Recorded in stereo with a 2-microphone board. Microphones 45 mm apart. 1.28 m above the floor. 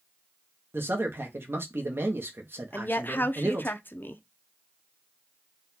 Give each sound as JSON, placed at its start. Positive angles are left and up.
{"t": 0.7, "sound": "a man speaking", "side_deg": -55, "distance_m": 0.9}
{"t": 2.7, "sound": "a woman speaking", "side_deg": 45, "distance_m": 0.7}